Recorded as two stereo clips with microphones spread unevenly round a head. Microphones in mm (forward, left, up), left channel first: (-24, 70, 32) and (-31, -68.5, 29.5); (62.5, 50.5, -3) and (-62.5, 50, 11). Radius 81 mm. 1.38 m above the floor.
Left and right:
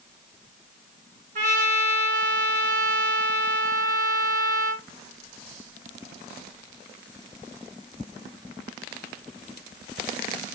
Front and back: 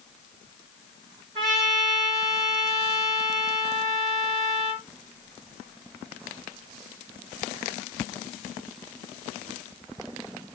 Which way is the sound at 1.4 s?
125° right.